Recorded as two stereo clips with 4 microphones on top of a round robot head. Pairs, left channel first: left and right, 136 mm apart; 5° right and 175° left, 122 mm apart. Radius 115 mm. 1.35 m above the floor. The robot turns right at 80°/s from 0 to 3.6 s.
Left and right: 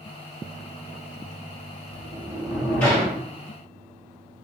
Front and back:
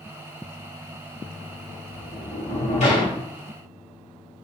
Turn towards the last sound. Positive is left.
turn(degrees=75)